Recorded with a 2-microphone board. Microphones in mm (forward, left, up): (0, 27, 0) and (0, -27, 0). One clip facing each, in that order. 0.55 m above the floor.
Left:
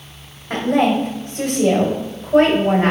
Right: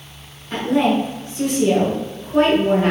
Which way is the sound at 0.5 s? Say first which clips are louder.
Left 1 dB; 70° left (ahead or behind).